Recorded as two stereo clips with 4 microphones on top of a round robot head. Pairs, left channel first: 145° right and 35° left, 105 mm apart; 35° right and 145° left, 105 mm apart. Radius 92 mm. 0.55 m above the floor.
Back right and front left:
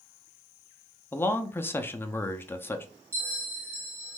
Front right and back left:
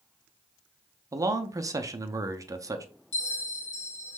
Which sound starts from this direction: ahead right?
A bell, at 3.1 s.